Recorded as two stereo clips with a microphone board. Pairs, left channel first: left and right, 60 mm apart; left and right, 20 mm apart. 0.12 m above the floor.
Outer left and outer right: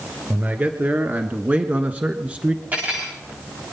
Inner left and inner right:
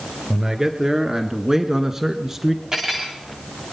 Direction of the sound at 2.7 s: 25° right (ahead or behind).